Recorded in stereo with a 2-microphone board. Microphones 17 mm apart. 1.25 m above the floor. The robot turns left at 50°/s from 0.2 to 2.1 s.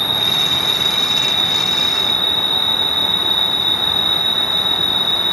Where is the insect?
175° left, 0.8 m; by 5.3 s 80° left, 0.8 m.